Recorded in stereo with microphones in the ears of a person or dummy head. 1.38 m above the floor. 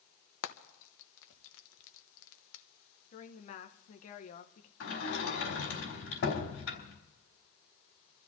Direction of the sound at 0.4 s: 75° left (ahead or behind).